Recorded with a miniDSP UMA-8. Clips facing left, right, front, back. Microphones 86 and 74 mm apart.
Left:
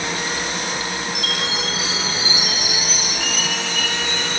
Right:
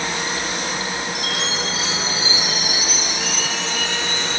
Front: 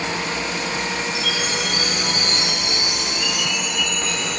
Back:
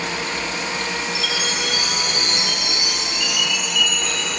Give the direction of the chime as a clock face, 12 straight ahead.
10 o'clock.